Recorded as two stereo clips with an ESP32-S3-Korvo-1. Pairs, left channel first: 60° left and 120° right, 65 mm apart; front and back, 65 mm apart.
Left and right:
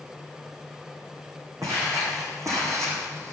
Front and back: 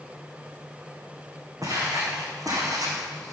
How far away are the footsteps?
About 4 m.